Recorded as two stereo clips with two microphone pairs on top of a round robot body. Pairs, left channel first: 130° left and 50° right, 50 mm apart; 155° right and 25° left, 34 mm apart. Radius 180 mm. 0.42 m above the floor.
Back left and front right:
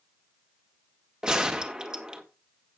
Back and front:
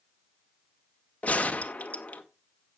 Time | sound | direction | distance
1.2 | a gunshot | 125° right | 1.6 m